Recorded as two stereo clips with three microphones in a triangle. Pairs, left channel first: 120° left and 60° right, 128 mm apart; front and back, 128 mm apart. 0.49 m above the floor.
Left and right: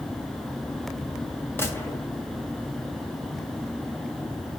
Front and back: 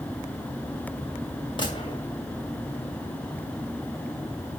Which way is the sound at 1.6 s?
50° left.